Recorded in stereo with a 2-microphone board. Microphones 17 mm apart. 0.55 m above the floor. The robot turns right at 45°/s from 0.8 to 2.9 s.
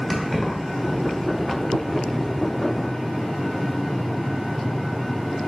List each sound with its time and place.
0.1 s keys jangling: 5° right (ahead or behind), 1.0 m